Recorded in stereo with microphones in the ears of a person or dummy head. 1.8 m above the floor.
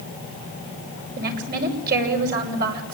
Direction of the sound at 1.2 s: 50° right (ahead or behind).